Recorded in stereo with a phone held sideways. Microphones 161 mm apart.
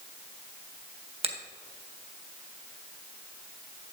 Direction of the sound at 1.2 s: 40° right (ahead or behind).